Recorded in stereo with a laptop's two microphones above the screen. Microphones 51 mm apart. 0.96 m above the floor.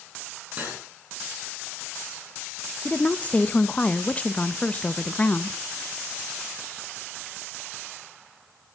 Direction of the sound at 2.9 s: 25° left (ahead or behind).